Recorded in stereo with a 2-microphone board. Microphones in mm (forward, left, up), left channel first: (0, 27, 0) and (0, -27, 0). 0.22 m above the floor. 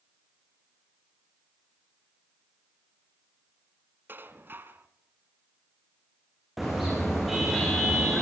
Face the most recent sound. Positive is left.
turn(degrees=-5)  # may be behind; listen again after turning